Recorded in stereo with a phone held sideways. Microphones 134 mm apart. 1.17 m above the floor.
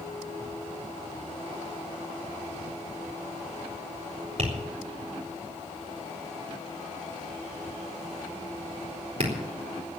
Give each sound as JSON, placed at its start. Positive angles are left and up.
{"t": 4.4, "sound": "tapping", "side_deg": -50, "distance_m": 4.0}